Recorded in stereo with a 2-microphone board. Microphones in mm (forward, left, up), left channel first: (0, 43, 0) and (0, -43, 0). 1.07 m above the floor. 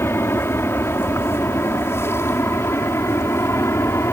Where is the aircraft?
30° left (ahead or behind).